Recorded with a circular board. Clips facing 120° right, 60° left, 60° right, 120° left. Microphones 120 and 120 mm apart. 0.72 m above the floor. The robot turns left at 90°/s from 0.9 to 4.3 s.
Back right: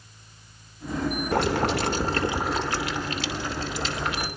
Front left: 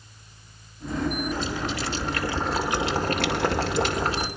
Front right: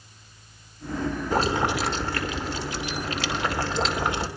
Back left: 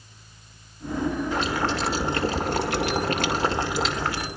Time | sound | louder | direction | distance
1.3 | boiling | back right 6 dB, front right 2 dB | 100° right | 2.5 m